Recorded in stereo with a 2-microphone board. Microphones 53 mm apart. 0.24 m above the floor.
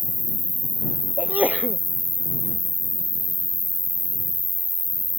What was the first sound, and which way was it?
An insect, 75° left (ahead or behind).